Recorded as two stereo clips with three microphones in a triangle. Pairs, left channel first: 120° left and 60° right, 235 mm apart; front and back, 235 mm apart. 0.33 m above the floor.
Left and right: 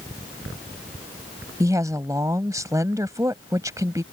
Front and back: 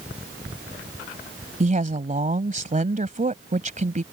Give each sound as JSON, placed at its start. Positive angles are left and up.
{"t": 1.6, "sound": "a woman speaking", "azimuth_deg": -135}